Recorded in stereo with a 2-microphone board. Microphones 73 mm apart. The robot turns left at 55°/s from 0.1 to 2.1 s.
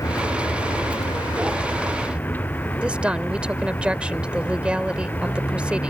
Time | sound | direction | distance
0.0 | a vehicle | 135° left | ?
2.8 | a woman speaking | 15° right (ahead or behind) | ?